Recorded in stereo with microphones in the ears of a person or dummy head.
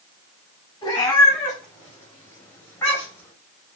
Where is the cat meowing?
25° left (ahead or behind), 4.5 m; by 3.3 s 20° left (ahead or behind), 3 m.